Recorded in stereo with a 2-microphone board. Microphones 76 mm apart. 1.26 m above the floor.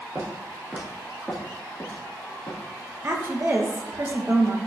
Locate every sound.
0.1 s footsteps: 35° right (ahead or behind), 1.7 m; by 2.6 s 50° left (ahead or behind), 1.9 m
3.0 s a woman speaking: 35° right (ahead or behind), 0.6 m